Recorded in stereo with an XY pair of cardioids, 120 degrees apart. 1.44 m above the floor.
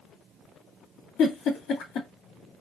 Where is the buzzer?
No buzzer in this recording.